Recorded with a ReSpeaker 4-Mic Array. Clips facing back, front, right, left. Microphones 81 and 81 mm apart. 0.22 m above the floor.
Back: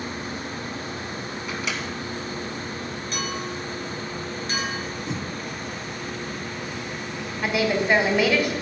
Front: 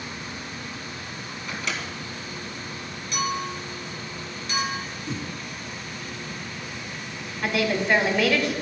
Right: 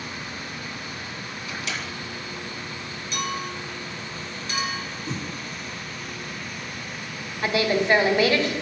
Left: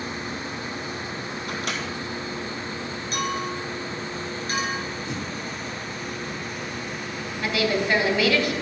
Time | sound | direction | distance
1.5 | a microwave | 95° left | 1.6 m
3.1 | a clink | 135° left | 2 m
5.1 | a whoosh | 125° right | 1.4 m
7.4 | a woman speaking | 105° right | 1.3 m